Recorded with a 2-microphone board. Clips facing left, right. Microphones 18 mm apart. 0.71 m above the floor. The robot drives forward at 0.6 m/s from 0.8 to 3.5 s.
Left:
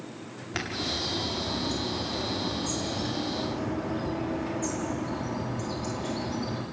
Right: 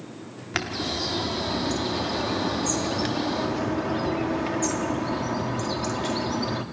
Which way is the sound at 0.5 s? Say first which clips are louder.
Right 3 dB; 35° right (ahead or behind).